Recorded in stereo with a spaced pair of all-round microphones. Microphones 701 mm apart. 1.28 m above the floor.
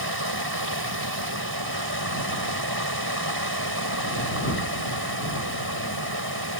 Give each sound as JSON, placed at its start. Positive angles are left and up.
{"t": 0.0, "sound": "running water", "side_deg": -30}